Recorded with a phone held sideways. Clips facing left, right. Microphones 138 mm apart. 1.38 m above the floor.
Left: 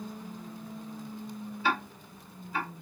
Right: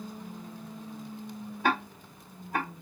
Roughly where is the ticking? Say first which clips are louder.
Right 3 dB; right.